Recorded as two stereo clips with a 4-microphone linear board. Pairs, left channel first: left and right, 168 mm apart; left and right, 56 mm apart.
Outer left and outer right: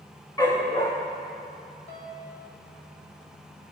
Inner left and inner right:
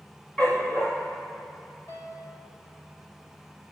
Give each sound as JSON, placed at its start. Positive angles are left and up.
{"t": 0.4, "sound": "a dog barking", "side_deg": 20, "distance_m": 4.5}
{"t": 1.9, "sound": "a piano", "side_deg": 85, "distance_m": 4.5}